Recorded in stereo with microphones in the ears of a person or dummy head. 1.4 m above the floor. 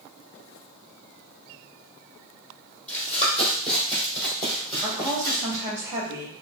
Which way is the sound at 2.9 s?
5° left (ahead or behind).